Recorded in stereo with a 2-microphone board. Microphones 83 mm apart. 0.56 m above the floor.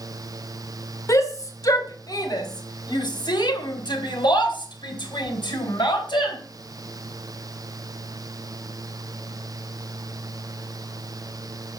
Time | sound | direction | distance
1.1 | a shout | 40° left (ahead or behind) | 2.5 m